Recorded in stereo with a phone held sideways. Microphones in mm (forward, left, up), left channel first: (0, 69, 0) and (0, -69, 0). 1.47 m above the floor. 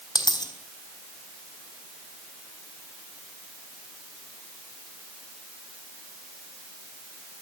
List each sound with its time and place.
0.1 s a dropped coin: 30° left (ahead or behind), 3.5 m